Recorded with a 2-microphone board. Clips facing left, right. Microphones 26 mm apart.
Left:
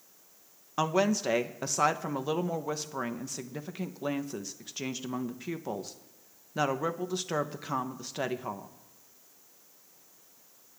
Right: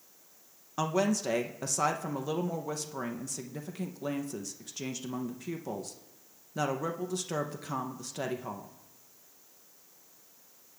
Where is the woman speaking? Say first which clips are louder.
Left 2 dB; 25° left (ahead or behind), 0.5 m.